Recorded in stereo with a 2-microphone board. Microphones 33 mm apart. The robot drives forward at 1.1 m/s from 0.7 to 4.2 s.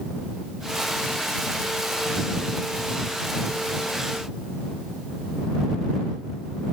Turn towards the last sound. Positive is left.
No sound to turn to.